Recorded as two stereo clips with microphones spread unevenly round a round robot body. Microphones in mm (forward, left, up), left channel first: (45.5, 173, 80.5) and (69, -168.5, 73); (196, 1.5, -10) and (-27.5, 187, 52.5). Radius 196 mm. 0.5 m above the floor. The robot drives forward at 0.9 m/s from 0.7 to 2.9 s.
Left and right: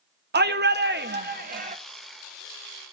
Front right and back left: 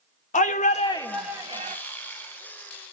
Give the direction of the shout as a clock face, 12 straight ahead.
2 o'clock.